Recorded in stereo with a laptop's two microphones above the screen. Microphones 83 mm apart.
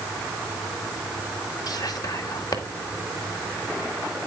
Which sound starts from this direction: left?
Whispering, at 1.7 s.